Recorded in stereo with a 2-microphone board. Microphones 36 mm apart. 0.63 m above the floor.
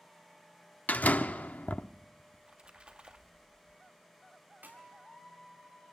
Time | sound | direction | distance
0.9 | a door slam | 60° left (ahead or behind) | 0.7 m
2.3 | a splash | 30° right (ahead or behind) | 1.0 m
4.6 | a clap | 80° right | 5.5 m